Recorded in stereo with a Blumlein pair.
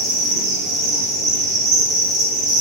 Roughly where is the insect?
Ahead right.